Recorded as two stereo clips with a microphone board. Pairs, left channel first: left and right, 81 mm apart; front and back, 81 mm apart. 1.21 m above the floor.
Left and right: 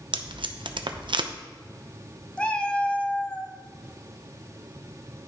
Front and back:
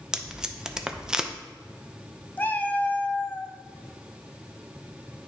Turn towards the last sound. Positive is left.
turn(degrees=30)